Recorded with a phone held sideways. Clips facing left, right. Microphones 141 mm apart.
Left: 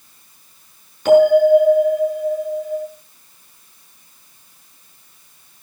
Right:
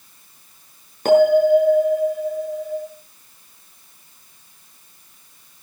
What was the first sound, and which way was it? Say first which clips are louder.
A bell: left 3 dB; 50° right (ahead or behind).